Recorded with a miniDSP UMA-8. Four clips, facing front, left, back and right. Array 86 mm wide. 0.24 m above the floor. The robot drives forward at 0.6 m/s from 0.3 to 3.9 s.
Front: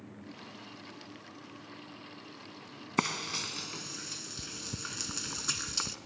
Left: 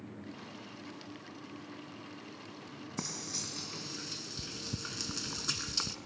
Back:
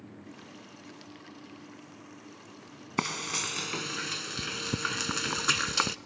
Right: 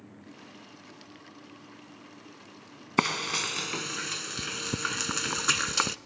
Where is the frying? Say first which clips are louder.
Right 16 dB, even; 85° right, 0.6 m; by 6.0 s 130° right, 0.8 m.